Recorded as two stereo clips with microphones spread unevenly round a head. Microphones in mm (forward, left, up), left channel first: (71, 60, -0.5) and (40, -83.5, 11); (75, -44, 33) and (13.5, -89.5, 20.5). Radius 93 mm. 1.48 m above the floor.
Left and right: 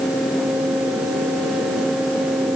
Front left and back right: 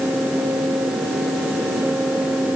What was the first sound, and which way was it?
Only background noise.